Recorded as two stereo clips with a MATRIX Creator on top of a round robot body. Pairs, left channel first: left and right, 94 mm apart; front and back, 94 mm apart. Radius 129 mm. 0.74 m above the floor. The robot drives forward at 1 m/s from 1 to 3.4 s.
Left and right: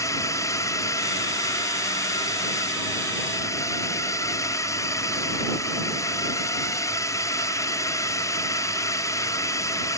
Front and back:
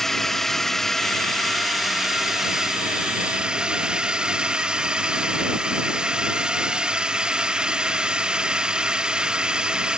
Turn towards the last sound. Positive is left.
turn(degrees=105)